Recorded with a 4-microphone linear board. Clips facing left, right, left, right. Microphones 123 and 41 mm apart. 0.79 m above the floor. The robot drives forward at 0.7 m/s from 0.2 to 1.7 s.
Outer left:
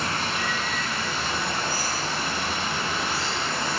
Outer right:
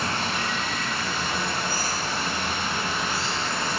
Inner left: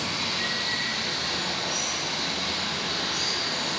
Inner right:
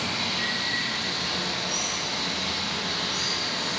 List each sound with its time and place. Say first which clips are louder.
0.0 s running water: even, inner right 1 dB; 25° right (ahead or behind), 0.7 m; by 3.8 s 10° right (ahead or behind), 1.7 m